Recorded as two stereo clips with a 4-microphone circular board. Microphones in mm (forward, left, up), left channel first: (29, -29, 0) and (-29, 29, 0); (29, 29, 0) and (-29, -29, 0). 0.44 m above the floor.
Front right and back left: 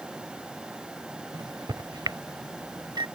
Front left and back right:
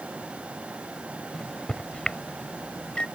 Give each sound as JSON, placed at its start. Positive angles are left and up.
{"t": 1.3, "sound": "a microwave", "azimuth_deg": 125}